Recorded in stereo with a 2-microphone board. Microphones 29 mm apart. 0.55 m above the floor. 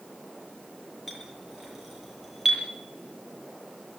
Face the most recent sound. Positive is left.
turn(degrees=-15)  # may be behind; listen again after turning